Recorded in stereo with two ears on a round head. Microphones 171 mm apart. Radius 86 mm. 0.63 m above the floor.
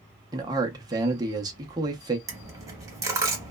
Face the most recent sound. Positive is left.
turn(degrees=-15)  # may be behind; listen again after turning